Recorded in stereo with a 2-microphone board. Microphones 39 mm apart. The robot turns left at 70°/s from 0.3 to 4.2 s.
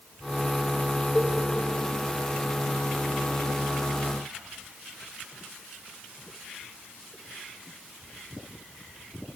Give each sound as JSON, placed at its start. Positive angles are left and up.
{"t": 1.1, "sound": "a cowbell", "side_deg": 20, "distance_m": 1.1}